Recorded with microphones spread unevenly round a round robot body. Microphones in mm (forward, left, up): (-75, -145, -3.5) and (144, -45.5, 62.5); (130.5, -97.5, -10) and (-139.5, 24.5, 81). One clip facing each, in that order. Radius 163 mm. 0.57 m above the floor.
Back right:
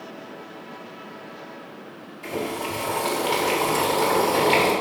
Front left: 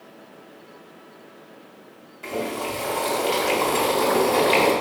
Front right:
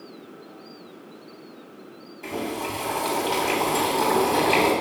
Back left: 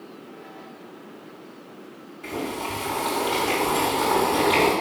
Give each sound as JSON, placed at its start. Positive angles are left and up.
{"t": 2.2, "sound": "boiling", "azimuth_deg": -55, "distance_m": 3.0}